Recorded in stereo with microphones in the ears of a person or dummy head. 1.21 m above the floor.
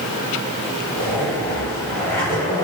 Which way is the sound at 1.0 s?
15° left (ahead or behind).